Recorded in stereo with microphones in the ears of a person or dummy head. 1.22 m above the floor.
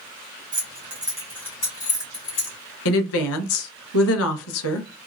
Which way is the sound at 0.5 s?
25° right (ahead or behind).